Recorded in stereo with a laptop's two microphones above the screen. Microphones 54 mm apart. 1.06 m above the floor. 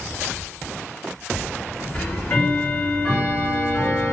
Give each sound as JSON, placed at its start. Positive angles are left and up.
{"t": 1.9, "sound": "ticking", "side_deg": 20, "distance_m": 1.2}